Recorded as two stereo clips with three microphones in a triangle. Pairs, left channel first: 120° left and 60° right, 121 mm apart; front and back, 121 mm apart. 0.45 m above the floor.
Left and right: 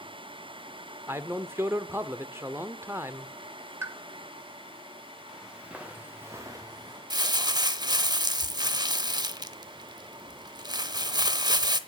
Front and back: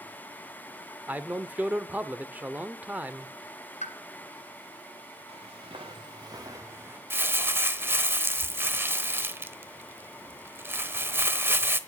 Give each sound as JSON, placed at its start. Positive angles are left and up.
{"t": 1.1, "sound": "a man speaking", "azimuth_deg": -115, "distance_m": 0.9}
{"t": 3.8, "sound": "a pop", "azimuth_deg": 10, "distance_m": 2.0}
{"t": 5.3, "sound": "footsteps", "azimuth_deg": -145, "distance_m": 2.5}
{"t": 7.1, "sound": "crumpling", "azimuth_deg": -110, "distance_m": 0.9}